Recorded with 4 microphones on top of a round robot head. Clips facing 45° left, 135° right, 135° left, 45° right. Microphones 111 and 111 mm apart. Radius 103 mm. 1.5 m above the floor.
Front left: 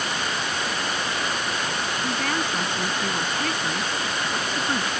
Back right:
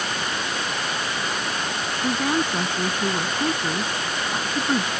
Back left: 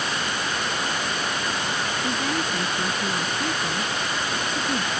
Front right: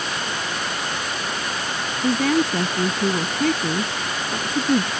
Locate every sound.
2.0 s a woman speaking: 60° right